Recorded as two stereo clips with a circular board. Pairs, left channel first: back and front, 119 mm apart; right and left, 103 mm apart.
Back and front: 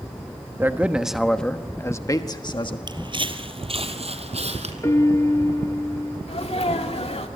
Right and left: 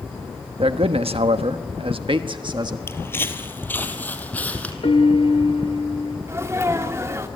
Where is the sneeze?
150° left, 2.5 m.